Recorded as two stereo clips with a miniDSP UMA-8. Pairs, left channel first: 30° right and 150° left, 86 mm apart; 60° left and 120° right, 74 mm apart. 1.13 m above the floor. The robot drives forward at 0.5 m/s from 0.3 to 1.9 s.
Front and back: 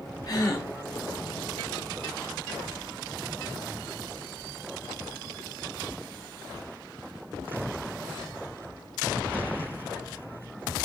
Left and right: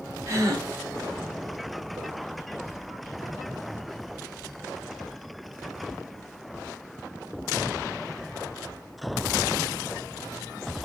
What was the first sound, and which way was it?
A gasp, 70° right.